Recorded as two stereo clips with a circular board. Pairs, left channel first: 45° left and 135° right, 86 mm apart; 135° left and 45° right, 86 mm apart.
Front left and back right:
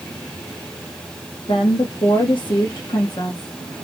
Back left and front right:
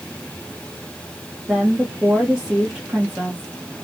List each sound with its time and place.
1.5 s a woman speaking: 35° left, 1.0 m